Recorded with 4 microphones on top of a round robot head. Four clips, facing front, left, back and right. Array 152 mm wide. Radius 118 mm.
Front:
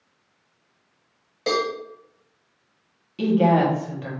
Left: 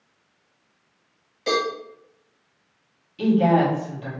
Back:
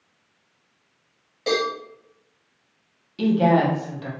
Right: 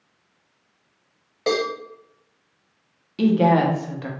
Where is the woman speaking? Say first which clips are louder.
Right 1 dB, even; 90° right, 1.1 m.